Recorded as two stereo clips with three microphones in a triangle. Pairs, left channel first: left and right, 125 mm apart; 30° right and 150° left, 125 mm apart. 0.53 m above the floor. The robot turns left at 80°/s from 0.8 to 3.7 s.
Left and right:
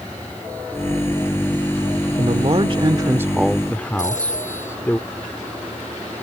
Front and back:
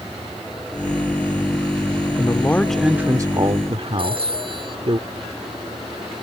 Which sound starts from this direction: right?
A man speaking, at 2.2 s.